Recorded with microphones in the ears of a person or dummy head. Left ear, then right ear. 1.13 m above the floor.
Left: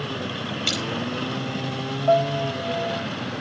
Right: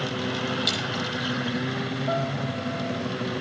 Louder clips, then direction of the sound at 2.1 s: Left 11 dB; 30° left (ahead or behind).